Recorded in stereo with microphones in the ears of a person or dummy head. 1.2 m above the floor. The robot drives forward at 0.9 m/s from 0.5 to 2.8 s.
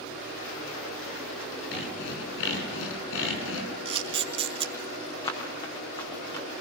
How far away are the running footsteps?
About 5.5 m.